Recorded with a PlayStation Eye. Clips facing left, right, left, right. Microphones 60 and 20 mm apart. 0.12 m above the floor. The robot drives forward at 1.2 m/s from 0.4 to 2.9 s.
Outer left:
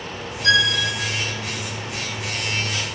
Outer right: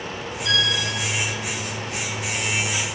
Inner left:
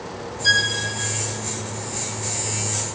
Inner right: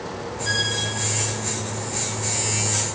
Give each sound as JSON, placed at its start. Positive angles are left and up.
{"t": 0.4, "sound": "a violin", "side_deg": 80, "distance_m": 1.7}